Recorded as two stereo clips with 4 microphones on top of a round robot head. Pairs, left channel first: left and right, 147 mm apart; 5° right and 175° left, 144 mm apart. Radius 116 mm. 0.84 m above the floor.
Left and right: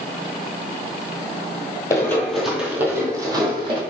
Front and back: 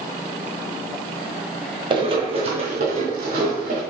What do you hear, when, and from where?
1.9 s running footsteps: 145° left, 1.0 m; by 3.8 s 140° right, 1.5 m